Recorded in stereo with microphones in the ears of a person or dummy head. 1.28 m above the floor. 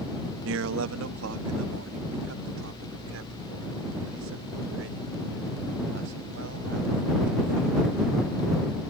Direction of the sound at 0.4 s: 75° right (ahead or behind).